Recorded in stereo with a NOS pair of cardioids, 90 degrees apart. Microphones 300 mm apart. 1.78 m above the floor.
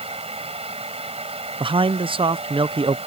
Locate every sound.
0.0 s a fan: 20° right
1.6 s a man speaking: 20° right